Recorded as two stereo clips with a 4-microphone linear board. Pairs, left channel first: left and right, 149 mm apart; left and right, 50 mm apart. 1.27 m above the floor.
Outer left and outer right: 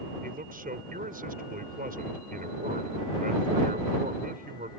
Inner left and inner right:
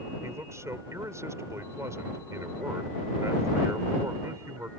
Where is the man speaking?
75° right (ahead or behind).